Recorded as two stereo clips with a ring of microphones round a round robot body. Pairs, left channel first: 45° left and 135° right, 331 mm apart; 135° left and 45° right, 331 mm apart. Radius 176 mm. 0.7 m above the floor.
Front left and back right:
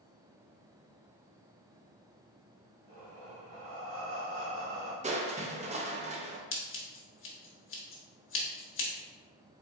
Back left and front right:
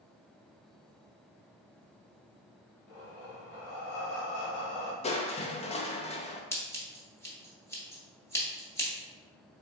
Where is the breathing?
175° left, 0.9 m.